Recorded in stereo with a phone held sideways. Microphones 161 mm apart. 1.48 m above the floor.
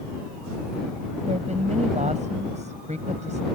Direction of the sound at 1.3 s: 45° right (ahead or behind).